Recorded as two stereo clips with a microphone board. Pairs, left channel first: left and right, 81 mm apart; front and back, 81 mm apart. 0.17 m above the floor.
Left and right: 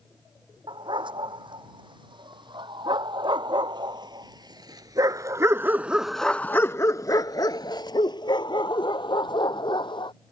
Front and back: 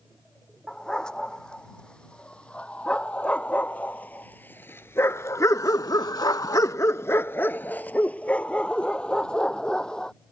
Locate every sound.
0.7 s a dog barking: 80° right; by 10.1 s 80° left